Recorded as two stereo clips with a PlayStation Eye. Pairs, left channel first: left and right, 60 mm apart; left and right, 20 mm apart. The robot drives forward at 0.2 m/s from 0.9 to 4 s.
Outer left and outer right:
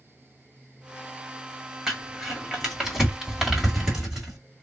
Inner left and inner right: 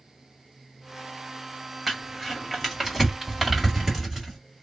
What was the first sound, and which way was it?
Crumpling, 10° right (ahead or behind).